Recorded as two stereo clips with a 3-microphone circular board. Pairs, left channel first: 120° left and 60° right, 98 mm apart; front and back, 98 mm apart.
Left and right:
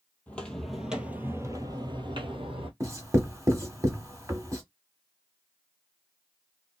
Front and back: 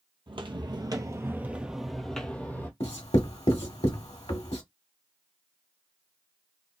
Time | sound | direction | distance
0.3 | footsteps | 165° right | 1.0 m
2.8 | writing | straight ahead | 1.0 m